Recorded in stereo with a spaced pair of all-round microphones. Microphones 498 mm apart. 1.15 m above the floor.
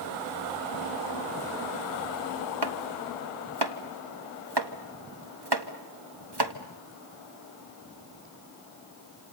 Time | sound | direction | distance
2.6 | chopping | 50° right (ahead or behind) | 1.7 m